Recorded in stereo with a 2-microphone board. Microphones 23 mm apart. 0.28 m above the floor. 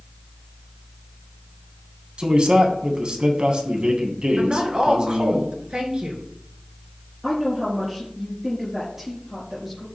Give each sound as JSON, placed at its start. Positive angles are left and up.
{"t": 2.2, "sound": "a man speaking", "side_deg": -45, "distance_m": 2.5}
{"t": 4.4, "sound": "a woman speaking", "side_deg": -45, "distance_m": 4.0}
{"t": 7.2, "sound": "a woman speaking", "side_deg": -5, "distance_m": 4.5}